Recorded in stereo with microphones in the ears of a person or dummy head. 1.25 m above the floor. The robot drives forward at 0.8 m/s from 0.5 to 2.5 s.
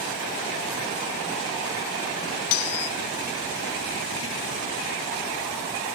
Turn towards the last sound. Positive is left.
turn(degrees=55)  # may be behind; listen again after turning